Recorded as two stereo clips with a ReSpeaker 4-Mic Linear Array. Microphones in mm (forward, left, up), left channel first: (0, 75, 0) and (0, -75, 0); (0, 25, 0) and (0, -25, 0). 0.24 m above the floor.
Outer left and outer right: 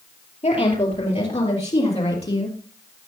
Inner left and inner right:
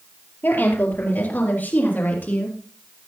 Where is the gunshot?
No gunshot in this recording.